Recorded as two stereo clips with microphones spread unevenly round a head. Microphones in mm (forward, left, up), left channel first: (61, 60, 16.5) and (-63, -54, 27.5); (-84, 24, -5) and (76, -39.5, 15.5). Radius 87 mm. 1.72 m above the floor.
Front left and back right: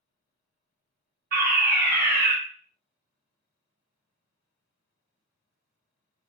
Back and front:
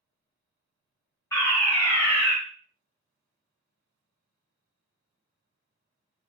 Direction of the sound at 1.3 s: 135° right.